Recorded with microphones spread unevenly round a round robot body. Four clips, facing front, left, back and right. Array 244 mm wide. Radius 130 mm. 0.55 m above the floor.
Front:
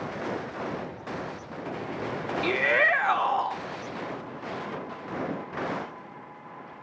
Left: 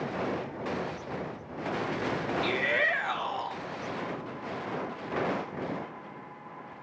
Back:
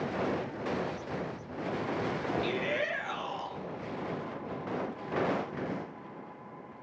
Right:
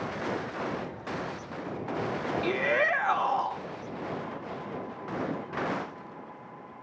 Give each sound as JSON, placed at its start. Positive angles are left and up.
{"t": 2.4, "sound": "a shout", "azimuth_deg": -20, "distance_m": 1.1}